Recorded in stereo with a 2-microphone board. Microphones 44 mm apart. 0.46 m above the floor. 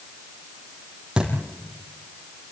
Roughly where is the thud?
Centre.